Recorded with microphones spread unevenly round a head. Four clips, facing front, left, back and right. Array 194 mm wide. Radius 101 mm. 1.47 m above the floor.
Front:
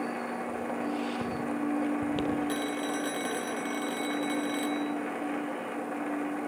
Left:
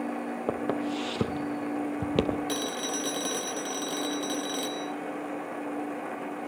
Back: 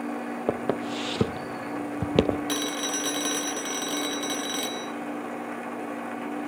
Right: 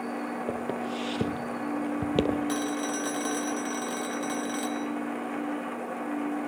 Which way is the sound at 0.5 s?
170° left.